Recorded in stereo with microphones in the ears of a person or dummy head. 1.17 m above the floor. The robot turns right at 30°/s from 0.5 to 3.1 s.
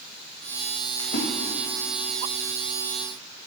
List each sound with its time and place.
1.0 s a splash: 70° left (ahead or behind), 1.7 m